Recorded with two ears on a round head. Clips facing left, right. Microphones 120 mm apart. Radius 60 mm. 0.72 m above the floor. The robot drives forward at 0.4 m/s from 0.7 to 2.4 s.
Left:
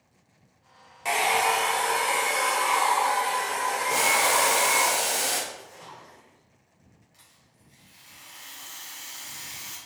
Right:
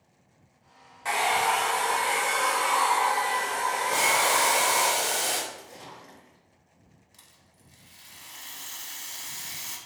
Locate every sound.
1.1 s a hair dryer: 20° left (ahead or behind), 0.6 m; by 4.9 s 10° left (ahead or behind), 1.1 m
3.9 s boiling: 10° left (ahead or behind), 0.9 m
5.5 s a splash: 35° right (ahead or behind), 0.7 m
7.1 s a rattle: 65° right (ahead or behind), 0.8 m